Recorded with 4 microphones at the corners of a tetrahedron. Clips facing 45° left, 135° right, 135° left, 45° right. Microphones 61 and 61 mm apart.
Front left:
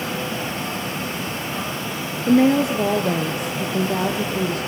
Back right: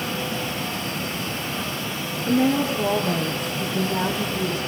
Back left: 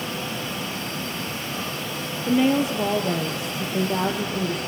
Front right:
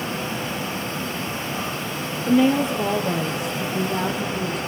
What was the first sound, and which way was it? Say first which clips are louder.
A woman speaking: front left 5 dB, front right 2 dB; 45° left.